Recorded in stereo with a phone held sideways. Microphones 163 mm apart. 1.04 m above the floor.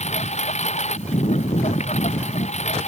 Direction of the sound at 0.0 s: 40° left (ahead or behind).